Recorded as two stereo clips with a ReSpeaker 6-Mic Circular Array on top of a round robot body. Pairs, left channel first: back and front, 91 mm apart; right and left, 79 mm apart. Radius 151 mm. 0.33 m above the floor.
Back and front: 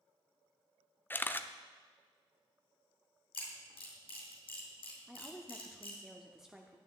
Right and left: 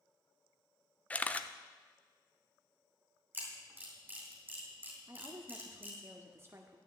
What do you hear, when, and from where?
1.1 s a camera shutter: 140° right, 0.8 m
3.3 s a camera shutter: 155° left, 3.5 m
5.1 s a woman speaking: 80° left, 1.1 m